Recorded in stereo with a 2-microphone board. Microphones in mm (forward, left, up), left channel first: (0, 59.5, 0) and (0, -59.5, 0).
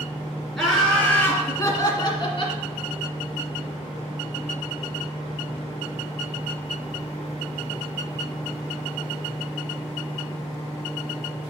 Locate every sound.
0.6 s laughter: centre (ahead or behind), 2.5 m; by 2.6 s 45° left (ahead or behind), 2 m